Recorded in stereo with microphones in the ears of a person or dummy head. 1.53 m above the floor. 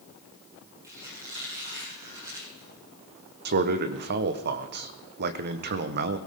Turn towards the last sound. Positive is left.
turn(degrees=-50)  # may be behind; listen again after turning